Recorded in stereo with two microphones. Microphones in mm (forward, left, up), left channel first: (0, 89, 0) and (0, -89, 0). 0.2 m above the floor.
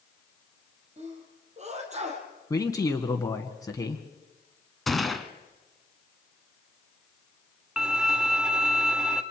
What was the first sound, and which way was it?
A sneeze, 40° right (ahead or behind).